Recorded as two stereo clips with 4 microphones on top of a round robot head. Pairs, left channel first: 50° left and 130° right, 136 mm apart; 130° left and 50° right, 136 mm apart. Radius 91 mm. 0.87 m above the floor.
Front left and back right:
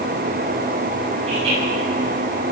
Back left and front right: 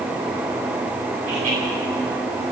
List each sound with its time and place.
1.2 s laughter: 80° right, 9.5 m